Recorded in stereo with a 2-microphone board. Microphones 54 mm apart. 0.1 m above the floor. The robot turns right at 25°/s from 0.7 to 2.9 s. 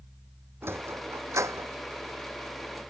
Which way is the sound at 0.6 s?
50° right (ahead or behind).